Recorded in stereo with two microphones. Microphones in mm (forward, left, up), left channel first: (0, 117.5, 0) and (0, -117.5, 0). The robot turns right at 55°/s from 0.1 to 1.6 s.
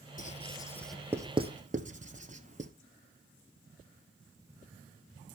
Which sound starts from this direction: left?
Writing, at 0.2 s.